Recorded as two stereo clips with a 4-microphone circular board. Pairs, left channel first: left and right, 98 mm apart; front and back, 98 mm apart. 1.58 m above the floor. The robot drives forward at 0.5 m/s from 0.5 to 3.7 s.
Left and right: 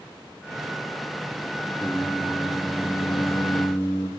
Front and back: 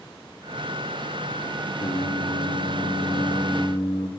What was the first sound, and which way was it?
Singing, 20° left.